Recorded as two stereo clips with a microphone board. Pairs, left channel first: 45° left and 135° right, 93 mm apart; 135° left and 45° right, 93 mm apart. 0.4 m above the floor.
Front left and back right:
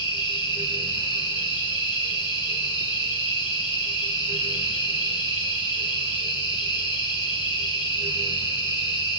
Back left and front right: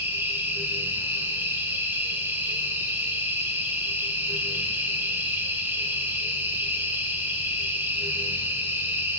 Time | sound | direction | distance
0.0 | an insect | 15° left | 3.5 m